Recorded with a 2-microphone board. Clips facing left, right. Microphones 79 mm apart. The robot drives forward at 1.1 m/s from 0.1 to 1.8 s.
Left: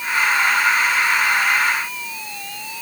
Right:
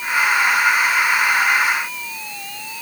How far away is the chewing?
No chewing in this recording.